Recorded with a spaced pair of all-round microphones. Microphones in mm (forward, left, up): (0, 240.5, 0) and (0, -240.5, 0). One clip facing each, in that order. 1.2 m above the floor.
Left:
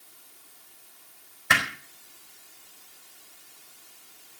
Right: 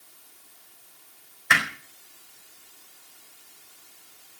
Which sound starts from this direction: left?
Hammering, at 1.5 s.